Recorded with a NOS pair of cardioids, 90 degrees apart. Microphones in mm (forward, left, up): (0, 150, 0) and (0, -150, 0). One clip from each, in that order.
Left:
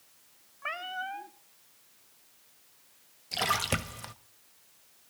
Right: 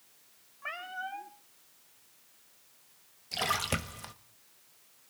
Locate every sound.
0.6 s a cat meowing: 20° left, 1.5 m
3.3 s a splash: 10° left, 1.1 m